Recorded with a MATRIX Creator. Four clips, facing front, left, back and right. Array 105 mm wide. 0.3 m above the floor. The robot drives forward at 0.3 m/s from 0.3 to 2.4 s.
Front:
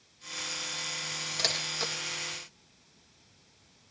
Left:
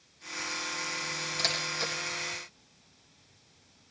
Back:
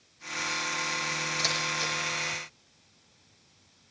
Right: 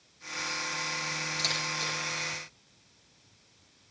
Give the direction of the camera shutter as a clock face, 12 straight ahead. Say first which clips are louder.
Left 3 dB, back 1 dB; 11 o'clock.